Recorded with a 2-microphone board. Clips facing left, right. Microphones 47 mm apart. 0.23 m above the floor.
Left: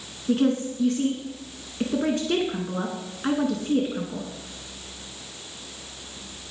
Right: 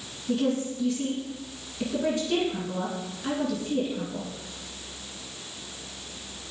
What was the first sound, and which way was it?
A woman speaking, 50° left (ahead or behind).